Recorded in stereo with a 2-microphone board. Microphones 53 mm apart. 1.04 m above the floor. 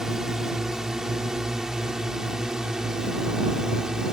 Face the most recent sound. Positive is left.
turn(degrees=-15)  # may be behind; listen again after turning